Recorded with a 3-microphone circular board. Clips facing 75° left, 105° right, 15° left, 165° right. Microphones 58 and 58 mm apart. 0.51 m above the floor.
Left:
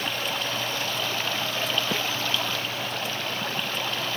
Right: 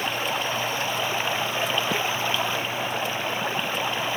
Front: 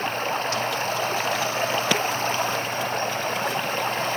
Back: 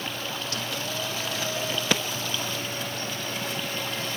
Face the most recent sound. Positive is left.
turn(degrees=-35)